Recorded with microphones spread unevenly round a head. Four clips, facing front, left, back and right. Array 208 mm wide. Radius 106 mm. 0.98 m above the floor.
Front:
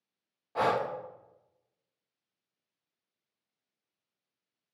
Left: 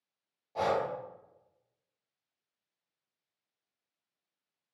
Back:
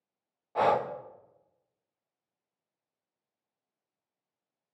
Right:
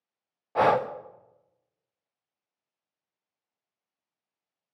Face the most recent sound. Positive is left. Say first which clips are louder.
# right 8 dB, back 3 dB
turn(degrees=-65)